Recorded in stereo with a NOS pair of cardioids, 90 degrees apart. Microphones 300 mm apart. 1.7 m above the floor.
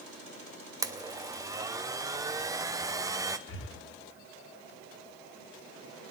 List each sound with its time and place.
0.8 s a blender: 10° right, 0.7 m
3.5 s breathing: 45° left, 1.8 m